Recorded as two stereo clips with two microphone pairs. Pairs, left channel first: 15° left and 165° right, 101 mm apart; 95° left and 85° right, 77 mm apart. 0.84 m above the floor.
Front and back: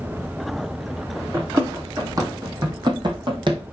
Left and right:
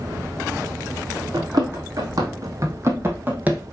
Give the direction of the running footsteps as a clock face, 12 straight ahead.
3 o'clock.